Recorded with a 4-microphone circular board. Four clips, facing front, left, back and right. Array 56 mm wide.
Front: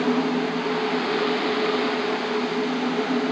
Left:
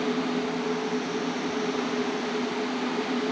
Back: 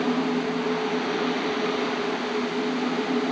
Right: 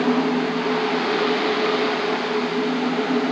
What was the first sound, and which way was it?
Only background noise.